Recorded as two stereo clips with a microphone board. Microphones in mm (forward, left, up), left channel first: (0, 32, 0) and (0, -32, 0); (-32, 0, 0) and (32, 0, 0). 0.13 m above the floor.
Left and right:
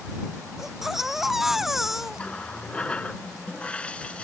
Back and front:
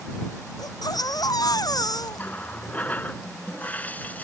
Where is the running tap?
145° left.